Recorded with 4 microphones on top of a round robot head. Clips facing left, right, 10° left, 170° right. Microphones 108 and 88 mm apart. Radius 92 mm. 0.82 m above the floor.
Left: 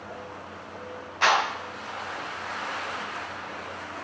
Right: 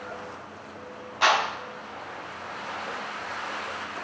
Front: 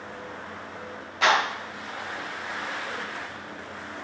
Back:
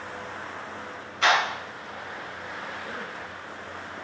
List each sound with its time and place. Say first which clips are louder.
1.2 s a clap: even, front 1 dB; 15° right, 7 m